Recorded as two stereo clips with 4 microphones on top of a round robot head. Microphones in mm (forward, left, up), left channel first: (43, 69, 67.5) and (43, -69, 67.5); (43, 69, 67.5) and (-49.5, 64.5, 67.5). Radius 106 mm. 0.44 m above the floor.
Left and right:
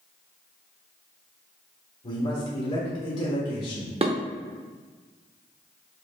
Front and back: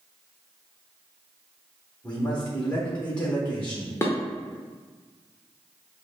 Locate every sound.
2.0 s a man speaking: 75° left, 1.4 m
4.0 s dishes clattering: 55° right, 0.7 m